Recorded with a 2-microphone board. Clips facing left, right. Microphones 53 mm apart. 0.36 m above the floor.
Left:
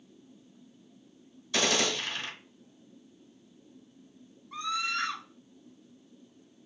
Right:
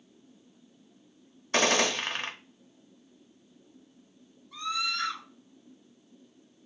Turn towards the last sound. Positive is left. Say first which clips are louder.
# even
turn(degrees=40)  # may be behind; listen again after turning